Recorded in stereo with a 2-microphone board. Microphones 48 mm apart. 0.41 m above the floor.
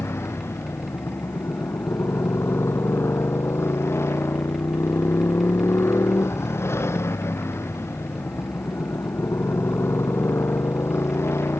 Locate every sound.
0.0 s a motorcycle: 70° left (ahead or behind)